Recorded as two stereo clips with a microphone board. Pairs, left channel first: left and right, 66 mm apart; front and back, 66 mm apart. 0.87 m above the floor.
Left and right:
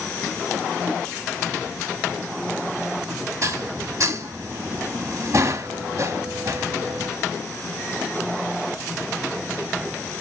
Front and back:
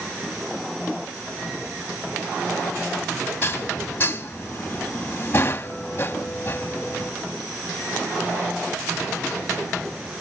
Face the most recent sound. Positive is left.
turn(degrees=-55)